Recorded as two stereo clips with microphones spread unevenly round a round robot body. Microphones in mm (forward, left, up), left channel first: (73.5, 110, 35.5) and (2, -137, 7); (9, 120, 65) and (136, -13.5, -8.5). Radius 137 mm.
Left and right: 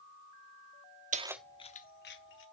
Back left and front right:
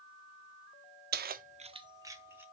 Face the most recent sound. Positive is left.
turn(degrees=30)